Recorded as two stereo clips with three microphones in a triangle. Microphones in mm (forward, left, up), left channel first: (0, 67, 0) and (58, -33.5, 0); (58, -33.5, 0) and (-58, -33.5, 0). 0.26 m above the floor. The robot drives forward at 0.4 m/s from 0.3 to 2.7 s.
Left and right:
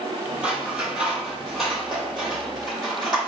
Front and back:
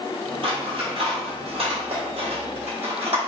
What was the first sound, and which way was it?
Scissors, 140° right.